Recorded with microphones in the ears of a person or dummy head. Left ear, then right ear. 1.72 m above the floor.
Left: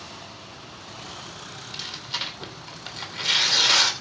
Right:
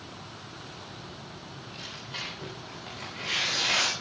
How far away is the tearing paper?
About 3 m.